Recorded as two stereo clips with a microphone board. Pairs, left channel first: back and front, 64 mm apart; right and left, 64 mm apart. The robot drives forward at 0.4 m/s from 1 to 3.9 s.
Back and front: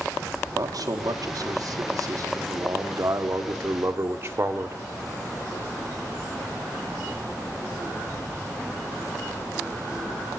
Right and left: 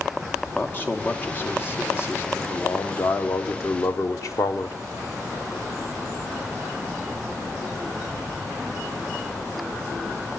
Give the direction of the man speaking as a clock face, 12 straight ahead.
1 o'clock.